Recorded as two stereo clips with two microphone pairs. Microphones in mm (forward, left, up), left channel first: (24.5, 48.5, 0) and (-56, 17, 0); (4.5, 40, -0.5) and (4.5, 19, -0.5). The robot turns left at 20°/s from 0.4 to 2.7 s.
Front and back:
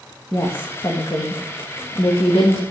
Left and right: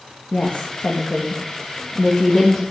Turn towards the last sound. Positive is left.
turn(degrees=30)